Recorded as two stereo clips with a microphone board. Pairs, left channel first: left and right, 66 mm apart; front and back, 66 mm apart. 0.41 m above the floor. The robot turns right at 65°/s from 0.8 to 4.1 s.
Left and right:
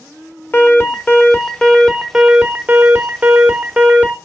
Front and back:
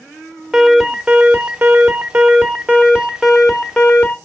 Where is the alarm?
100° left, 1.1 m; by 4.2 s 45° right, 1.1 m.